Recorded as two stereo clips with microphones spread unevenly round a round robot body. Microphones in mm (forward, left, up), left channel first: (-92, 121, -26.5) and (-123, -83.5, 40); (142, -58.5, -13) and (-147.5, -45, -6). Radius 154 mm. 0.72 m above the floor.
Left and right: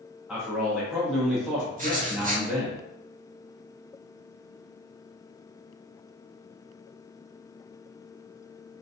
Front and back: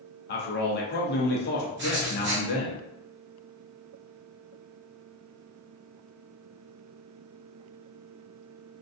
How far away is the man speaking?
About 0.5 m.